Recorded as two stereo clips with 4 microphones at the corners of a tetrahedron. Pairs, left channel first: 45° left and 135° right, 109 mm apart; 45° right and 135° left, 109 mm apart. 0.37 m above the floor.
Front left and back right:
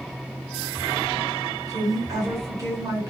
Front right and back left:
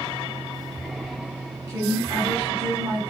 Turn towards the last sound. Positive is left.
turn(degrees=-175)